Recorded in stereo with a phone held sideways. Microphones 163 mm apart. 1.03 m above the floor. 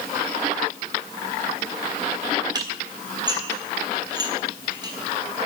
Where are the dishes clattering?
25° right (ahead or behind), 4 m.